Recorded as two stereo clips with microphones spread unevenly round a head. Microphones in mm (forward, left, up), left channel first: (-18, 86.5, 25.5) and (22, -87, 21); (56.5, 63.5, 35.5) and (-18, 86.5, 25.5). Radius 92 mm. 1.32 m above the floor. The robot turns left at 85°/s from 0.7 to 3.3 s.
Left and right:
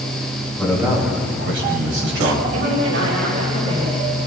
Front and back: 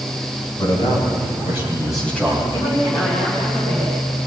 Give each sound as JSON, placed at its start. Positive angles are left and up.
{"t": 0.6, "sound": "a man speaking", "azimuth_deg": 20, "distance_m": 7.0}
{"t": 2.5, "sound": "a woman speaking", "azimuth_deg": -75, "distance_m": 6.5}